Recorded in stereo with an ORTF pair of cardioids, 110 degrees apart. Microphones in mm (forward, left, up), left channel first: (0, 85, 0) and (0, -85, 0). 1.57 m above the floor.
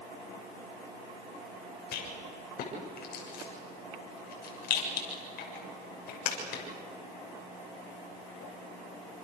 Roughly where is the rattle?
Ahead left.